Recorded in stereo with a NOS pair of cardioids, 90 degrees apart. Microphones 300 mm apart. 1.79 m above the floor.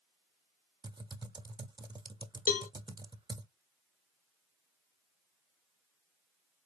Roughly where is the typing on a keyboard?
Ahead.